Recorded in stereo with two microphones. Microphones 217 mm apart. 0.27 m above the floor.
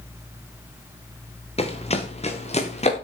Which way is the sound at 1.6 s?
30° left (ahead or behind).